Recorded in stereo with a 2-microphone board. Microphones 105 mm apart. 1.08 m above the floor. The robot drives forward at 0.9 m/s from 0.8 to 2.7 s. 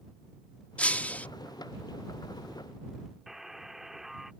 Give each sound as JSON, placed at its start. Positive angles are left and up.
{"t": 0.8, "sound": "breaking glass", "side_deg": 10}
{"t": 3.3, "sound": "a buzzer", "side_deg": -5}